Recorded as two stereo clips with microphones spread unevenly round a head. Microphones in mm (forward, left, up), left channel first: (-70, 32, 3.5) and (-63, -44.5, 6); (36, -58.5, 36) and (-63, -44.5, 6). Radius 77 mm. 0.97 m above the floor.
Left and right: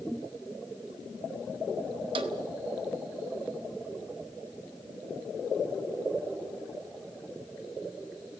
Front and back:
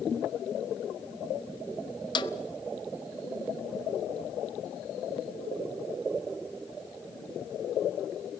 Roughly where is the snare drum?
Ahead right.